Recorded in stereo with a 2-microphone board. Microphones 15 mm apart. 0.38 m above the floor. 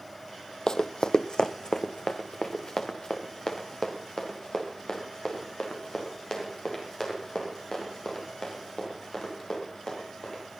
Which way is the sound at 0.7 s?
50° left (ahead or behind).